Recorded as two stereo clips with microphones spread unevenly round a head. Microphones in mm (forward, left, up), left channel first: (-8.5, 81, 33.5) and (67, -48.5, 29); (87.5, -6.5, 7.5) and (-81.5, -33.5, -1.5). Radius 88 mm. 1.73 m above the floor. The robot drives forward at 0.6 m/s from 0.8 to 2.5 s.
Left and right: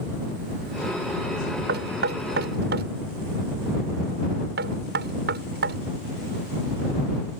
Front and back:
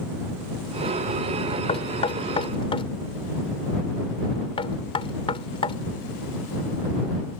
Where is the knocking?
50° right.